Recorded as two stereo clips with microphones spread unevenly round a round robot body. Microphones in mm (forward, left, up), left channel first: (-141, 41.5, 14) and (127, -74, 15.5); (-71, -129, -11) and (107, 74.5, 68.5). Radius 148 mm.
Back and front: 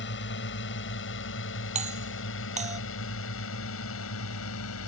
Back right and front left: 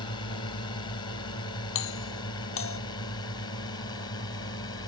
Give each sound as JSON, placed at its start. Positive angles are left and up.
{"t": 0.0, "sound": "a drone", "azimuth_deg": -175}
{"t": 1.8, "sound": "a doorbell", "azimuth_deg": -90}